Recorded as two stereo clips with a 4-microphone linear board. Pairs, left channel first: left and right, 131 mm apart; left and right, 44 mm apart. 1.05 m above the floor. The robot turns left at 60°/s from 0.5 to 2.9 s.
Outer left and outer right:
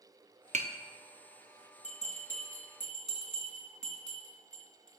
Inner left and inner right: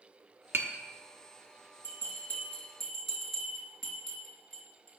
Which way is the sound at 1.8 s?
65° left (ahead or behind).